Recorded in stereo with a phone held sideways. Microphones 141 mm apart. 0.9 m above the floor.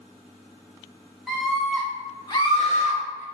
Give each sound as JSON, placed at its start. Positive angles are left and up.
{"t": 1.3, "sound": "a scream", "side_deg": 0, "distance_m": 3.0}